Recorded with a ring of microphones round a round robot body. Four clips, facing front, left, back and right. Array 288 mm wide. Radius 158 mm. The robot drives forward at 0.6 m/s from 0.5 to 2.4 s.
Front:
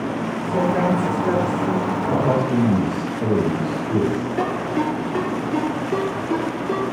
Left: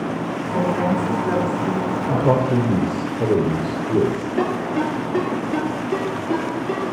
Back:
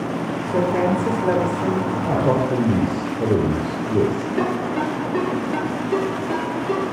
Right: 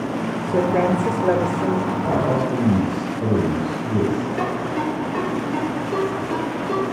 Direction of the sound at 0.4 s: 120° right.